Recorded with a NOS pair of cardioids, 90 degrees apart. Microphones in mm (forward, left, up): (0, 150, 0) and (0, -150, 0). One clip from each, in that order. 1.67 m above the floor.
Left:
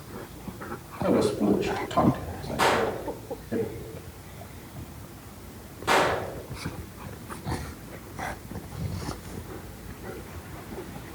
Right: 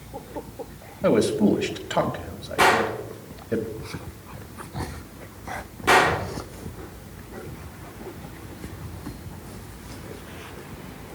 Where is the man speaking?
55° right, 2.5 m.